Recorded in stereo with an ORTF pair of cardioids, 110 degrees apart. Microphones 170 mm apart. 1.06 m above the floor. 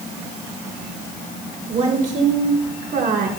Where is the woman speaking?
45° right, 3.5 m; by 3.3 s 60° right, 2.5 m.